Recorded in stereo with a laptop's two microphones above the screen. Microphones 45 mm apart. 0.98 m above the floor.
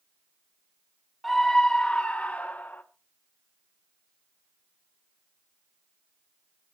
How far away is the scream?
About 1.8 m.